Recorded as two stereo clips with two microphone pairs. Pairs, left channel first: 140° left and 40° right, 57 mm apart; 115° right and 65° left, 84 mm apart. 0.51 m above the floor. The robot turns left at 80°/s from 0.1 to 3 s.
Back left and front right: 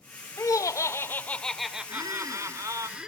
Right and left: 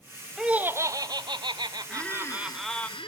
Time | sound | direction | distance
0.4 | laughter | 150° left | 1.4 m
1.9 | a squeak | 30° right | 3.5 m